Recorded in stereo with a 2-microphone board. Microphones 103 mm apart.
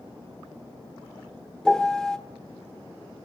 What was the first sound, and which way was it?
A piano, 5° left (ahead or behind).